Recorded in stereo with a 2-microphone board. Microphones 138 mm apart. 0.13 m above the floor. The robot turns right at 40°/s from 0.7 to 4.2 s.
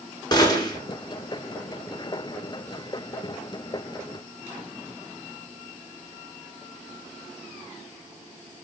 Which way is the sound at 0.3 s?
30° left (ahead or behind).